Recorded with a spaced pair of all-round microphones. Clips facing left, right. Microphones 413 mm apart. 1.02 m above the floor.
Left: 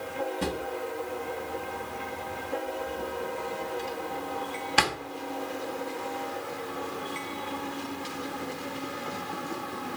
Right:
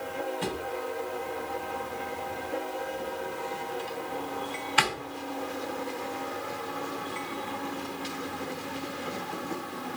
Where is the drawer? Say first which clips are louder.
Left 1 dB; 60° left (ahead or behind), 1.0 m.